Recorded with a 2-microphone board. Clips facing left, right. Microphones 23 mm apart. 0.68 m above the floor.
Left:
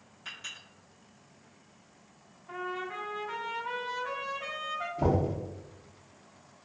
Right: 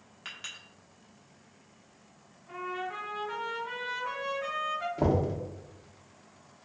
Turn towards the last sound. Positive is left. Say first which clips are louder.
# even
turn(degrees=-55)  # may be behind; listen again after turning